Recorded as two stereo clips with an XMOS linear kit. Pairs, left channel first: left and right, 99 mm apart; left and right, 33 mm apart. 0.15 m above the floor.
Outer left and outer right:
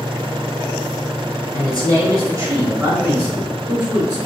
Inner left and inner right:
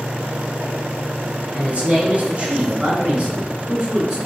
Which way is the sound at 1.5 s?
35° right (ahead or behind).